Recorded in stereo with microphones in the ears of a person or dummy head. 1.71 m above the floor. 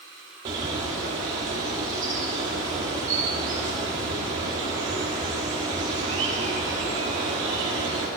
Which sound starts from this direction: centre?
A bird, at 0.5 s.